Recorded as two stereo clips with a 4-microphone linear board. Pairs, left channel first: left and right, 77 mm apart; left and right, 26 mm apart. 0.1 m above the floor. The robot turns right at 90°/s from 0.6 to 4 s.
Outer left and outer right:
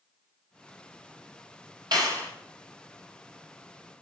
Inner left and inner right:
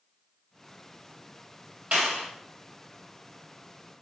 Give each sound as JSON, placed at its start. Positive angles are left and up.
{"t": 1.9, "sound": "a clap", "azimuth_deg": -95, "distance_m": 3.5}